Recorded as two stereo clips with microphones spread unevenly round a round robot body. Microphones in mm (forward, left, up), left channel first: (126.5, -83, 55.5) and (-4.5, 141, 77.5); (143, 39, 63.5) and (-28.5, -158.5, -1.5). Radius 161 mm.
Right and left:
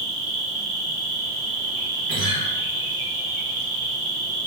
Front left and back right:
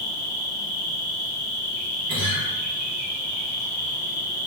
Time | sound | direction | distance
0.0 | an insect | 120° left | 0.9 m
2.1 | a guitar | 150° right | 1.7 m